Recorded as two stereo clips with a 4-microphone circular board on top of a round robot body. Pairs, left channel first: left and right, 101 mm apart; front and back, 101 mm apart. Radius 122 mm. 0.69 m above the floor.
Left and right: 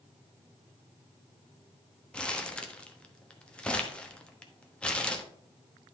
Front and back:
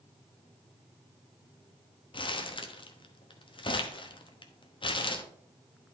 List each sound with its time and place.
2.1 s crumpling: 15° left, 1.1 m